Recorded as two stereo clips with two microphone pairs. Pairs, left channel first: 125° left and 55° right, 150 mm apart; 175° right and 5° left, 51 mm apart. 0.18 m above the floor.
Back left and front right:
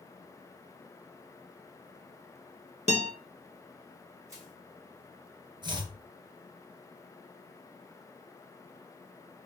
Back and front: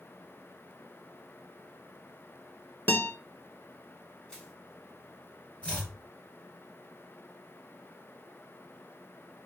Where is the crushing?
110° right, 2 m.